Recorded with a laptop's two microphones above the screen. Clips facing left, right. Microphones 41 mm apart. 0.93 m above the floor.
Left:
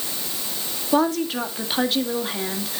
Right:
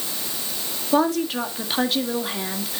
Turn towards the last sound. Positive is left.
turn(degrees=-5)  # may be behind; listen again after turning